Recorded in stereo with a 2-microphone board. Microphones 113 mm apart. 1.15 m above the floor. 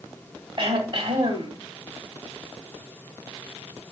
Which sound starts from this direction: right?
Throat clearing, at 0.6 s.